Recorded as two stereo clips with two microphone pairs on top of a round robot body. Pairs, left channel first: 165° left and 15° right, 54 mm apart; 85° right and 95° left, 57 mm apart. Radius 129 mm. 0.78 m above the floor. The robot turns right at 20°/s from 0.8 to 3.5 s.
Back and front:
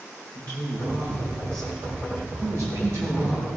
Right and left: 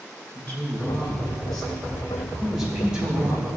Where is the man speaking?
25° right, 5.5 m; by 3.6 s 30° left, 5.5 m.